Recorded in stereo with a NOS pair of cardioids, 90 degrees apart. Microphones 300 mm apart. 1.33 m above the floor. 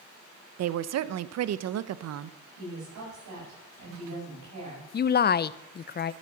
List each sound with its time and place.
0.6 s a woman speaking: 60° right, 0.8 m
2.6 s a woman speaking: 70° right, 8 m
4.9 s a woman speaking: 35° left, 0.6 m